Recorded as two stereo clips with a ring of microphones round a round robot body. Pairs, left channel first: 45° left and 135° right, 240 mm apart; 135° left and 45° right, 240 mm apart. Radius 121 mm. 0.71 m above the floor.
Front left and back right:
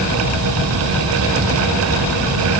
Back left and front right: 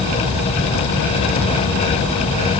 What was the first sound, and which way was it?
Only background noise.